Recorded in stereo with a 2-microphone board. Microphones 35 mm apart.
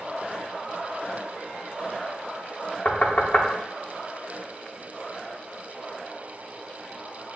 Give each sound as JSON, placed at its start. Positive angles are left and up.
{"t": 2.9, "sound": "knocking", "side_deg": 45, "distance_m": 0.6}